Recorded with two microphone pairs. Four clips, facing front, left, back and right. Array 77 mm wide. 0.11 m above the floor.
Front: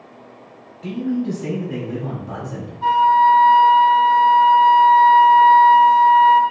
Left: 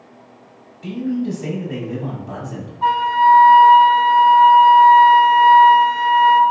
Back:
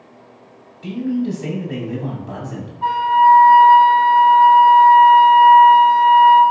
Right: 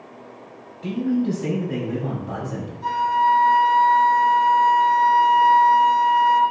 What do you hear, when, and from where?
0.8 s a man speaking: 150° right, 1.6 m
2.8 s a flute: 90° left, 0.8 m